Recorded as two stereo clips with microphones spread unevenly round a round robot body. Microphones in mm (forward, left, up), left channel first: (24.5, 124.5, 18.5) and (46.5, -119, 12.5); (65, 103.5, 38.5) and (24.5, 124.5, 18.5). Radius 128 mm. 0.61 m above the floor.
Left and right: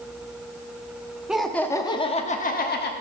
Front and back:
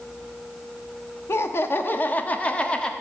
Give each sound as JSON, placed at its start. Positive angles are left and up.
{"t": 1.3, "sound": "laughter", "azimuth_deg": 0, "distance_m": 1.0}